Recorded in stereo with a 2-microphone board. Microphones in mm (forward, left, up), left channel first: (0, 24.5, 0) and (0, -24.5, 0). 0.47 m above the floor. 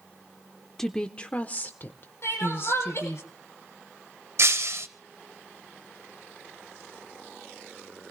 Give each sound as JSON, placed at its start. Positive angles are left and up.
{"t": 0.8, "sound": "a woman speaking", "side_deg": 5, "distance_m": 0.8}
{"t": 2.2, "sound": "crying", "side_deg": 60, "distance_m": 4.5}
{"t": 4.4, "sound": "breaking glass", "side_deg": -65, "distance_m": 1.2}